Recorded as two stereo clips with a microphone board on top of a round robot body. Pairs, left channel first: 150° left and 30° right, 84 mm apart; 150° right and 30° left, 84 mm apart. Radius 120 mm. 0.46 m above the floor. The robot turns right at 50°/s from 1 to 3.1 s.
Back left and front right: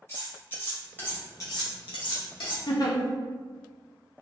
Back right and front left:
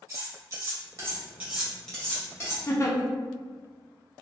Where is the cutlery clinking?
80° left, 1.5 m; by 2.6 s 160° left, 1.5 m.